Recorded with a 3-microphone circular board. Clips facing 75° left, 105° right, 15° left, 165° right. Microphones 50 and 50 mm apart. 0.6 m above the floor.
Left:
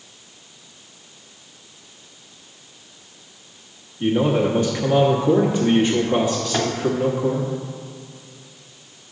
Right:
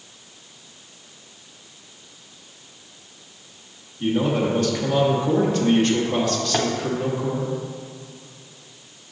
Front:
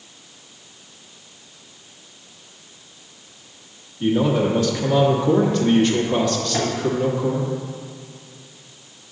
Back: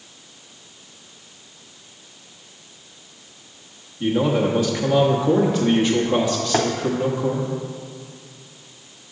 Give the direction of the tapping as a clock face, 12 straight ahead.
6 o'clock.